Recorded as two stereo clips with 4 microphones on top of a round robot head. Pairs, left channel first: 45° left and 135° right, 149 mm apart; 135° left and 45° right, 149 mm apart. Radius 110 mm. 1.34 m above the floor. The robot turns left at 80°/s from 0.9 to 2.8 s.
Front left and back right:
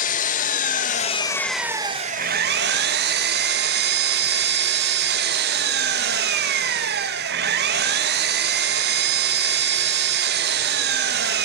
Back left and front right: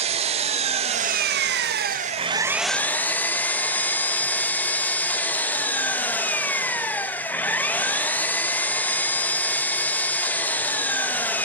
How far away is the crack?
No crack in this recording.